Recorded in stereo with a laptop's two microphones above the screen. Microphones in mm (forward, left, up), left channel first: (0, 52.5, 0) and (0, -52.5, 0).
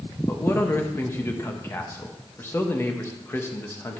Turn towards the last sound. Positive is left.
turn(degrees=25)  # may be behind; listen again after turning